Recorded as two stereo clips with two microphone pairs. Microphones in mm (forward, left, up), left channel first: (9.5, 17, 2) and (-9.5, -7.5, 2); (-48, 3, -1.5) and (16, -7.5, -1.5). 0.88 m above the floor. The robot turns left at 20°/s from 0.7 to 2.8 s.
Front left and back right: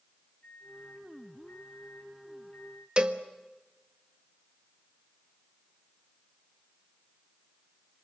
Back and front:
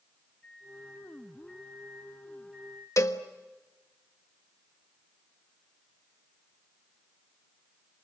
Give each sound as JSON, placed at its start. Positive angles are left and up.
{"t": 0.4, "sound": "a microwave", "azimuth_deg": 95, "distance_m": 7.5}
{"t": 3.0, "sound": "a cowbell", "azimuth_deg": 180, "distance_m": 1.4}